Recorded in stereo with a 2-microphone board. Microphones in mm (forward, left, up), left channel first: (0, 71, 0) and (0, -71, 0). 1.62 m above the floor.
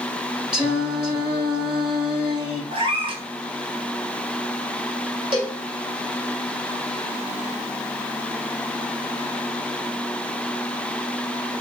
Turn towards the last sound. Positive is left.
turn(degrees=-35)  # may be behind; listen again after turning